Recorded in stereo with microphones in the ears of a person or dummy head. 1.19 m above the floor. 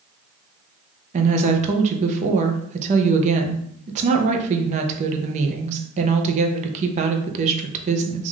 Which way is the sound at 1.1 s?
35° right (ahead or behind).